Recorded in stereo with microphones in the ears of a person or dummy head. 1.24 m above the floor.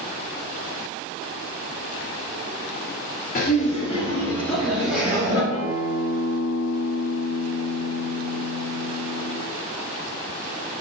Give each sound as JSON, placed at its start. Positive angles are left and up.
{"t": 3.4, "sound": "laughter", "side_deg": 45, "distance_m": 1.2}
{"t": 5.5, "sound": "a guitar", "side_deg": 35, "distance_m": 1.4}